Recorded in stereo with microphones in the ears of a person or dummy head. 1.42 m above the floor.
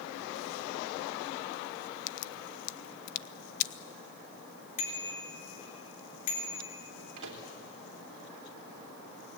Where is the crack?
50° left (ahead or behind), 0.9 m.